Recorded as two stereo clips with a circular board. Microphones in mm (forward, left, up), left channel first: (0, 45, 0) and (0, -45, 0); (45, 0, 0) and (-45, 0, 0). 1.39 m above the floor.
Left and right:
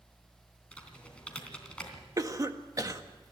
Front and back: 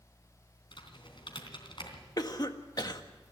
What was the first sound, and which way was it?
Typing on a keyboard, 15° left.